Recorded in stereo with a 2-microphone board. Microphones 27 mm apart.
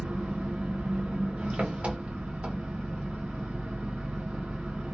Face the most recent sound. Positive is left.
turn(degrees=-55)  # may be behind; listen again after turning